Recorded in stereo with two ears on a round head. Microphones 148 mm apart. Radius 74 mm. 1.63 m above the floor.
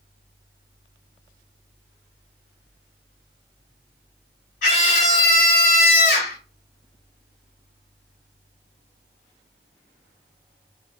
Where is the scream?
85° left, 3 m.